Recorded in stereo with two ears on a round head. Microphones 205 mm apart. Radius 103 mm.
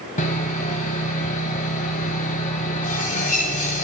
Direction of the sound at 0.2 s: 35° left (ahead or behind).